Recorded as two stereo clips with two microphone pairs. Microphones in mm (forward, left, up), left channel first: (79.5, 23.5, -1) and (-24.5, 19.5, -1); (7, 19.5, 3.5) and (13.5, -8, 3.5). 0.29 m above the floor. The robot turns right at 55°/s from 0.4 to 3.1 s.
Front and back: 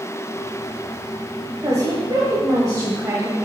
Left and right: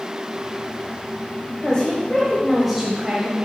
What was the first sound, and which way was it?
A woman speaking, 140° left.